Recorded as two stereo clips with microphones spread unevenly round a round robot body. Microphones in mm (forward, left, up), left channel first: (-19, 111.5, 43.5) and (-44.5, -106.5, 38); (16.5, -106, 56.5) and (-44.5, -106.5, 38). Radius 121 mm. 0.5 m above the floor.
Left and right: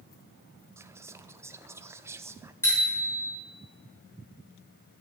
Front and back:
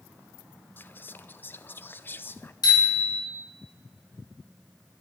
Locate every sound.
0.8 s whispering: 45° right, 0.7 m
2.6 s a bicycle bell: 5° left, 4.5 m